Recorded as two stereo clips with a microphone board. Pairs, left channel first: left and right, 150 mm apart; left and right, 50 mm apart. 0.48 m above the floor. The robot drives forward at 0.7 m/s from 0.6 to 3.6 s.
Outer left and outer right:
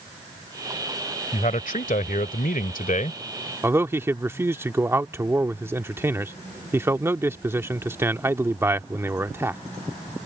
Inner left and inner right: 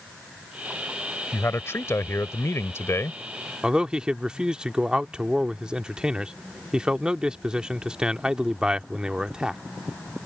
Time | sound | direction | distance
1.3 | a man speaking | 55° left (ahead or behind) | ?
3.6 | a man speaking | 15° right (ahead or behind) | ?